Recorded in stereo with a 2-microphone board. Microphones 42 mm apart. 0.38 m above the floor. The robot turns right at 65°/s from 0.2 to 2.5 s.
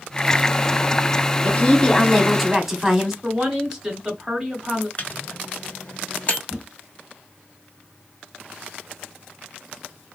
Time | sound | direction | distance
1.4 | a woman speaking | 125° left | 1.1 m
3.2 | a woman speaking | 15° right (ahead or behind) | 1.8 m
5.0 | a microwave | 35° left (ahead or behind) | 1.0 m
6.5 | a whoosh | 30° right (ahead or behind) | 1.8 m